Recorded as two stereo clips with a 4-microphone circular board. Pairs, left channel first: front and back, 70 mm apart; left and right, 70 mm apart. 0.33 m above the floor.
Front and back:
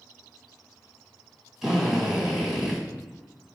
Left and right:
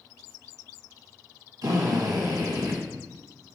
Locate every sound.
1.6 s a drill: 95° right, 2.5 m